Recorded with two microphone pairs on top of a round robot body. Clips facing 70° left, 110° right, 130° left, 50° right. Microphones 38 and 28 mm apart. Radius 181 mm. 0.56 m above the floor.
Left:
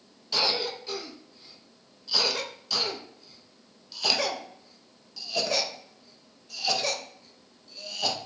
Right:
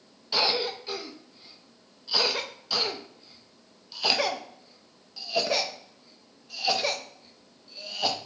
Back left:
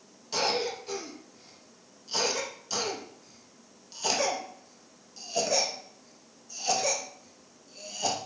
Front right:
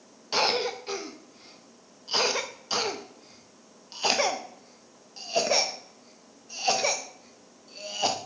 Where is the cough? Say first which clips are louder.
Right 1 dB, front right 3 dB; 70° right, 0.7 m.